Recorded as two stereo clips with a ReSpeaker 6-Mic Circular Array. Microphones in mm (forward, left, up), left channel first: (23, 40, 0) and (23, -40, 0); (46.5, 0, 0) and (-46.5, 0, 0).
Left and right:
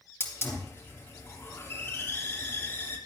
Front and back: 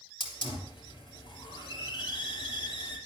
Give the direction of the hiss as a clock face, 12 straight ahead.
11 o'clock.